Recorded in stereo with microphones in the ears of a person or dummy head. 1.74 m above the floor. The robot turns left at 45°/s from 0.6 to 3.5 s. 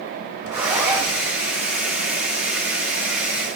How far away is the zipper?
About 5.5 m.